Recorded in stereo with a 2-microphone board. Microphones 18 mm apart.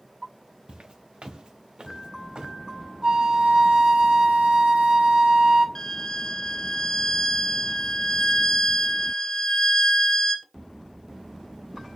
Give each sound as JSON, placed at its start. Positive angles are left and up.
{"t": 0.7, "sound": "footsteps", "side_deg": -80, "distance_m": 1.1}
{"t": 3.0, "sound": "a flute", "side_deg": -60, "distance_m": 2.5}
{"t": 5.8, "sound": "a violin", "side_deg": 35, "distance_m": 0.7}